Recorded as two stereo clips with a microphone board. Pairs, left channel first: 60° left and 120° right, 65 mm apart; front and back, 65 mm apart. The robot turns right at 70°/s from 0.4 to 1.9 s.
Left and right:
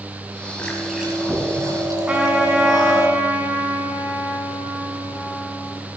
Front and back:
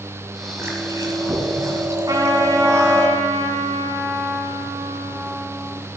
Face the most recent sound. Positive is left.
turn(degrees=170)